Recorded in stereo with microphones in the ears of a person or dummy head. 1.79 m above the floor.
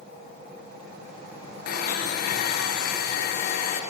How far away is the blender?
About 0.9 m.